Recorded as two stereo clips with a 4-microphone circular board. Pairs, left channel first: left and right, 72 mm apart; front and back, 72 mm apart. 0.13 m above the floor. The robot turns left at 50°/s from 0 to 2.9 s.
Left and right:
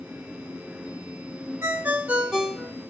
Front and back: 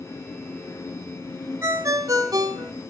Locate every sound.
1.6 s a ringtone: 135° right, 1.0 m; by 2.7 s 170° left, 1.0 m